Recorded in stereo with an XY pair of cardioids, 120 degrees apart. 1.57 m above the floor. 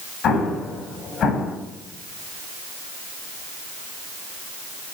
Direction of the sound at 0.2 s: 55° left.